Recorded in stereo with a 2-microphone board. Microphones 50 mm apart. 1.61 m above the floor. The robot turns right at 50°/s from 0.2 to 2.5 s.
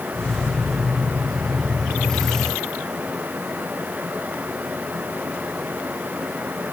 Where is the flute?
No flute in this recording.